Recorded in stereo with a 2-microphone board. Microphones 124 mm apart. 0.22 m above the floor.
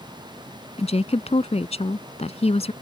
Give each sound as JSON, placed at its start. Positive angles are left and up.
{"t": 0.8, "sound": "a woman speaking", "side_deg": 60}